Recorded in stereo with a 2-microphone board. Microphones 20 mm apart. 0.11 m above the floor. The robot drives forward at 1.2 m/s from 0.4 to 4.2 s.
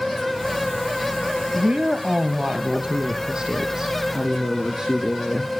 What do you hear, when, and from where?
1.5 s a woman speaking: 60° right (ahead or behind), 1.9 m; by 5.5 s 25° right (ahead or behind), 3.5 m